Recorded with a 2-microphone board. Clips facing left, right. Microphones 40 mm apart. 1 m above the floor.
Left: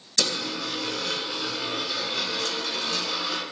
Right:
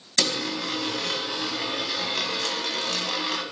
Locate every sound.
0.2 s a dropped coin: 55° right (ahead or behind), 3.5 m